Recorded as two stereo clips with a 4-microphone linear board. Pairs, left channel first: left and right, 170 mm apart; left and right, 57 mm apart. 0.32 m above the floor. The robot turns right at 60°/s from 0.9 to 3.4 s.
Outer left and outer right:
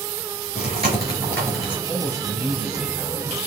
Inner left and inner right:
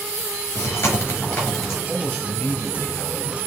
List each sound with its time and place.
0.6 s chewing: 40° left (ahead or behind), 3 m; by 1.8 s 10° right (ahead or behind), 3 m
1.9 s a man speaking: 10° left, 2 m; by 3.4 s 100° left, 2 m